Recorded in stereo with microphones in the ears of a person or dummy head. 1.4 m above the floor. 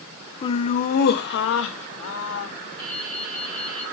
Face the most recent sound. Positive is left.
turn(degrees=-20)  # may be behind; listen again after turning